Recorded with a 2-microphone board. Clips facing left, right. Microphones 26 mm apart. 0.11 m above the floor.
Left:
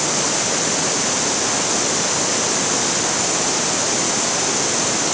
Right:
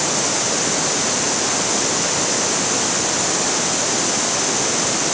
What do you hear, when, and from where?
Only background noise.